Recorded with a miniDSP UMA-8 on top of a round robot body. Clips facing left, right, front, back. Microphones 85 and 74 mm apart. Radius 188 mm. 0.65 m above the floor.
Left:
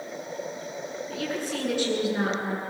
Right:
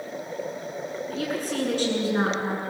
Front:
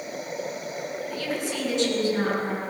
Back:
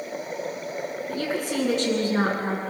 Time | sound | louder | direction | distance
1.1 | a woman speaking | right 2 dB, back 4 dB | 140° right | 8.5 m